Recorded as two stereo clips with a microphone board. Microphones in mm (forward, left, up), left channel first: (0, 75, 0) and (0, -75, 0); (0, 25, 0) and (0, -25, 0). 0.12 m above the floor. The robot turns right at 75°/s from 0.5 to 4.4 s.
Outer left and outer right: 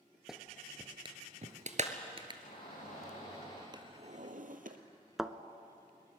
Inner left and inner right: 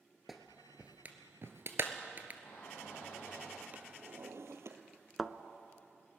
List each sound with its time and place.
0.3 s a clap: centre (ahead or behind), 1.5 m; by 2.3 s 30° right (ahead or behind), 1.5 m
2.4 s a shout: 55° left, 7 m; by 3.6 s 145° left, 7 m
3.7 s a drawer: 150° right, 1.4 m; by 4.8 s 100° right, 1.4 m
5.2 s a thud: centre (ahead or behind), 0.6 m